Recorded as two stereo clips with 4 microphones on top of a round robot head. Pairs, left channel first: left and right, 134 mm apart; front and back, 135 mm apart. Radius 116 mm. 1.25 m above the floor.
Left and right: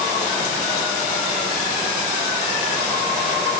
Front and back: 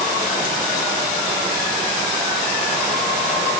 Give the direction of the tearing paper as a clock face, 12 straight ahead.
I don't hear tearing paper.